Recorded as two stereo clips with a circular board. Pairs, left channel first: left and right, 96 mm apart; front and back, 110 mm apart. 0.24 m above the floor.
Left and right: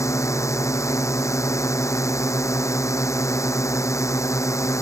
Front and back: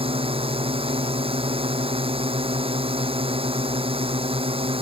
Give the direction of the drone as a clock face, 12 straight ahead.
7 o'clock.